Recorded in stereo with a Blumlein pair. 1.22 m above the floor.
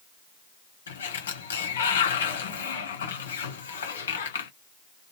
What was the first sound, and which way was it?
A sliding door, 65° left.